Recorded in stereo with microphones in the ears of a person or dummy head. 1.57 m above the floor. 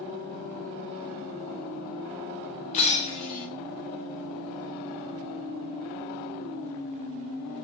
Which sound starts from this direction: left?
Breaking glass, at 2.7 s.